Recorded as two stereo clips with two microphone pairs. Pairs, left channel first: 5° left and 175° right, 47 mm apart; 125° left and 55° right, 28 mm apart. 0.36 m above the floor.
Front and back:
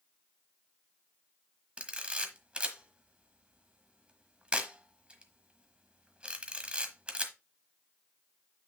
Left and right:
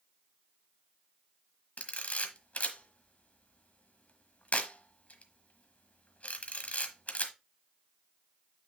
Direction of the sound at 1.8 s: 125° left.